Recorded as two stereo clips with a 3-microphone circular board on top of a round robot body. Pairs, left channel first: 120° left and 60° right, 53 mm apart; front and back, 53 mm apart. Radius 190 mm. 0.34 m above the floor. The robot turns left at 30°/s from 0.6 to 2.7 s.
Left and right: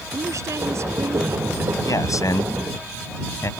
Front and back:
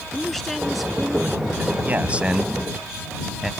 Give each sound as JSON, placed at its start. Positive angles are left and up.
{"t": 0.1, "sound": "a woman speaking", "azimuth_deg": -85}
{"t": 1.8, "sound": "a man speaking", "azimuth_deg": 120}